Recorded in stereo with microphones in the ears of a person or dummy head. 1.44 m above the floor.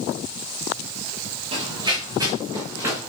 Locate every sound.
1.5 s running footsteps: 30° right (ahead or behind), 4 m; by 3.1 s 10° right (ahead or behind), 4.5 m